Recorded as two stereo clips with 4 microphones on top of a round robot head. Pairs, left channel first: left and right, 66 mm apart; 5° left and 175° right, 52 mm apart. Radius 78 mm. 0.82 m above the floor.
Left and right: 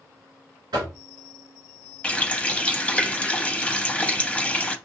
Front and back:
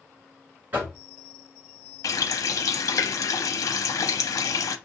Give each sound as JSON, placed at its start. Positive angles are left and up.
{"t": 0.7, "sound": "knocking", "azimuth_deg": -115, "distance_m": 2.5}
{"t": 2.0, "sound": "a running tap", "azimuth_deg": 15, "distance_m": 0.6}